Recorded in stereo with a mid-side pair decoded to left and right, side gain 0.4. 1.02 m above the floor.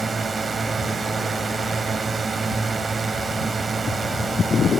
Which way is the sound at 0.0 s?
35° right.